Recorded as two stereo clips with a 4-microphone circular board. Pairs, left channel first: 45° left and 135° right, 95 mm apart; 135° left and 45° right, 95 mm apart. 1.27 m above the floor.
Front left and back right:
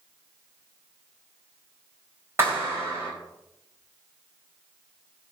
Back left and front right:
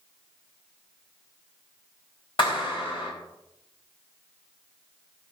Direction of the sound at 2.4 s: 165° left.